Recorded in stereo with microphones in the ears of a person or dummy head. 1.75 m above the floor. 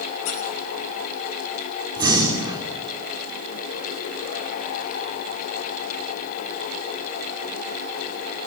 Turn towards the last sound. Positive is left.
turn(degrees=-25)  # may be behind; listen again after turning